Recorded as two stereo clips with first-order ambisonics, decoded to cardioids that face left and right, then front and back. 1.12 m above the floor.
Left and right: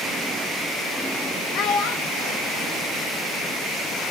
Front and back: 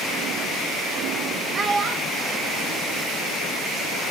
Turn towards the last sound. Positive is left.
turn(degrees=150)